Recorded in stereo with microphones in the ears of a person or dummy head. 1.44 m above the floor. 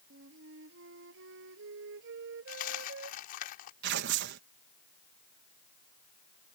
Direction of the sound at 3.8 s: 65° right (ahead or behind).